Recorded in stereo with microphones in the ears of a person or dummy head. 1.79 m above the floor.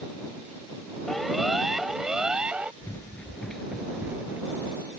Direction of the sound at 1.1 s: Centre (ahead or behind).